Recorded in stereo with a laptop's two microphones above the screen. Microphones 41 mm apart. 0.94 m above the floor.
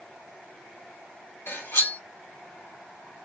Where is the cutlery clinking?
60° left (ahead or behind), 1.0 m.